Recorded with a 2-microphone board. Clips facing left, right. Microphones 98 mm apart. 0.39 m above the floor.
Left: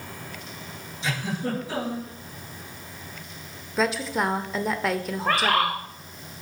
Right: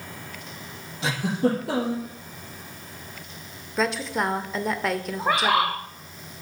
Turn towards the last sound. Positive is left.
turn(degrees=-10)  # may be behind; listen again after turning